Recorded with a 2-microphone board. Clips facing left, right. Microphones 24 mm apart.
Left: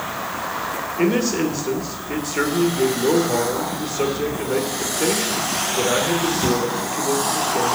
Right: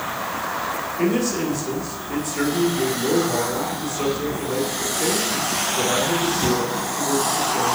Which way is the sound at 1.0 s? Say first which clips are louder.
Left 3 dB; 30° left (ahead or behind).